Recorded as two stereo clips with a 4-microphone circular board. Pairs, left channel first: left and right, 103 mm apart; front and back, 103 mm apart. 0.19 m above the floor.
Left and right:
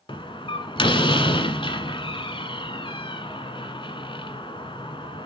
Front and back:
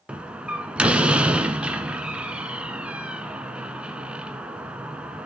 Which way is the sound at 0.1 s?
105° left.